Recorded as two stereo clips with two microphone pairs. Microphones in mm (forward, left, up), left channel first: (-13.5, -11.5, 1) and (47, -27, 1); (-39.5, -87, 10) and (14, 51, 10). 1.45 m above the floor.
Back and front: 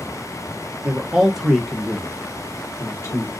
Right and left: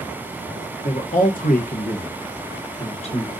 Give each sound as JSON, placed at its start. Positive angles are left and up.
{"t": 0.8, "sound": "a man speaking", "azimuth_deg": -75, "distance_m": 1.0}